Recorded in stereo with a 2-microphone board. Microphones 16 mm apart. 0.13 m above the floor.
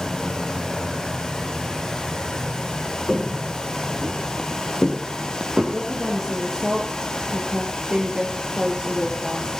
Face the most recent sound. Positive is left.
turn(degrees=-60)  # may be behind; listen again after turning